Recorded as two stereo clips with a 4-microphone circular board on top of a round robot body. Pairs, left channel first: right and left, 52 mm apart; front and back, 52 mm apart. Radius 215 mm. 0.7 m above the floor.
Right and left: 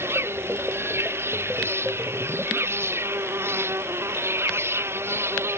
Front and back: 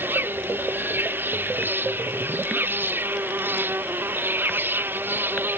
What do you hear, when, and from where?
0.0 s an insect: 130° left